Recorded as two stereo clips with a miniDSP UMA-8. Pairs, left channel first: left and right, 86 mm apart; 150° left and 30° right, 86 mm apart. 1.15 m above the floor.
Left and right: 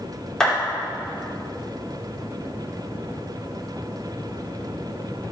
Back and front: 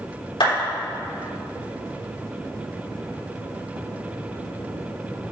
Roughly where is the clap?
Behind.